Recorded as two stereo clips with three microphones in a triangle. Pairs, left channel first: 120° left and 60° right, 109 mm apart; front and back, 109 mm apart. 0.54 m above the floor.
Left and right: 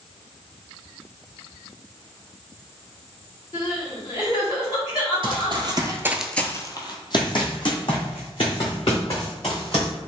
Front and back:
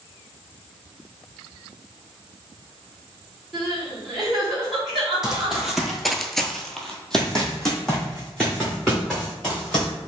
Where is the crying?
90° left, 1.9 m.